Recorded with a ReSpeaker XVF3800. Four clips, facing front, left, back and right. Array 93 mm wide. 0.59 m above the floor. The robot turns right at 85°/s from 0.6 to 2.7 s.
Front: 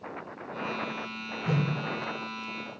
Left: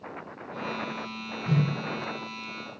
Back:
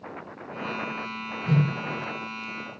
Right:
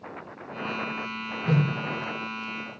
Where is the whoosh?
75° right, 2.5 m; by 1.7 s 55° right, 2.5 m.